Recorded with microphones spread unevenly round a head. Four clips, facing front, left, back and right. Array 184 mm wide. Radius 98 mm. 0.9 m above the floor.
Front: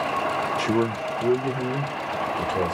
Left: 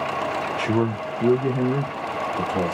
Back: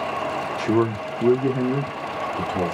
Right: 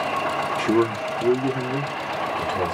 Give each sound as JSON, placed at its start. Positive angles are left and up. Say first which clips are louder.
{"t": 0.6, "sound": "a man speaking", "louder": "right 3 dB, back 6 dB", "azimuth_deg": -85, "distance_m": 0.6}